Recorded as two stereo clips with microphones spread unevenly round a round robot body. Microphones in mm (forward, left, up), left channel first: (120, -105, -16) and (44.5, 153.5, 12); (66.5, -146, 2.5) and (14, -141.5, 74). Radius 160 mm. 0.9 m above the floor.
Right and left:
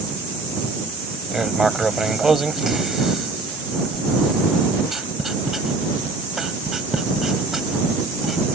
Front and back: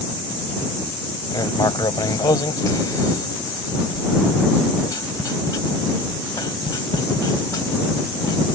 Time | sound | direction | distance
1.3 | writing | 20° left | ?